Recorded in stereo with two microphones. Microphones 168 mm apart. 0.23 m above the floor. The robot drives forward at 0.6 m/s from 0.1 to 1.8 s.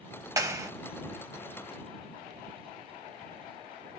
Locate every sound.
0.4 s a clap: 20° right (ahead or behind), 0.9 m